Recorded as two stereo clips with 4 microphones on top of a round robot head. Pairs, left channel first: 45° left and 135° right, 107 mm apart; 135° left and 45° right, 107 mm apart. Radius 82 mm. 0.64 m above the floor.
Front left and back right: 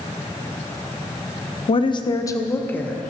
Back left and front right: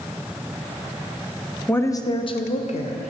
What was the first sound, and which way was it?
A woman speaking, 60° left.